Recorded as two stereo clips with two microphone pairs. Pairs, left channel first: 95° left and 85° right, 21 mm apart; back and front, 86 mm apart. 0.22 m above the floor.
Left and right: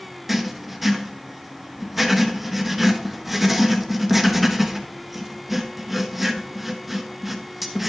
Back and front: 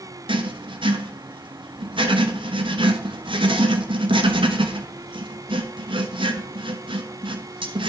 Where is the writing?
5° left, 1.0 m.